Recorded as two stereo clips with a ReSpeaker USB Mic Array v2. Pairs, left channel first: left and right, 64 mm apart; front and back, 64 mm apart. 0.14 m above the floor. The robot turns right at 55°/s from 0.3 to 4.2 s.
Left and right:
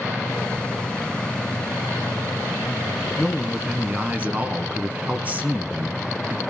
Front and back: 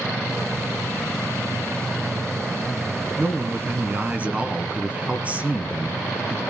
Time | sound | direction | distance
3.2 | a man speaking | 170° left | 1.2 m